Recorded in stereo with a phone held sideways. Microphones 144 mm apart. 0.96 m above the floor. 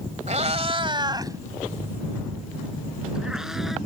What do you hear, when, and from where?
0.3 s a cat meowing: 55° right (ahead or behind); by 3.8 s centre (ahead or behind)